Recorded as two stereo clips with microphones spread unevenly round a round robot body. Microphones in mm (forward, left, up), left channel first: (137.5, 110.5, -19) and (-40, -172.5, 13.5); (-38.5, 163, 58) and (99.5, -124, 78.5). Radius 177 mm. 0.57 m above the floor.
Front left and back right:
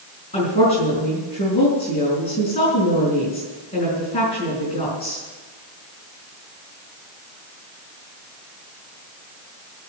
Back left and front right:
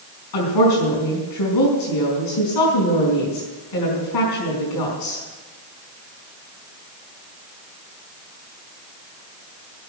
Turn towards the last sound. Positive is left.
turn(degrees=135)